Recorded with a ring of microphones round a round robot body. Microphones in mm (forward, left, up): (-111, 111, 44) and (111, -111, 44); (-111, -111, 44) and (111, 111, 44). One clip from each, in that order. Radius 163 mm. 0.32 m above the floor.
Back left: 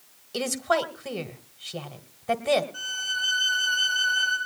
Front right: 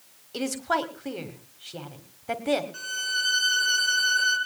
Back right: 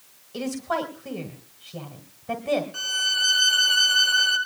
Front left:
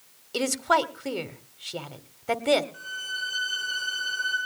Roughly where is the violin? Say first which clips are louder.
Even, back right 9 dB; right.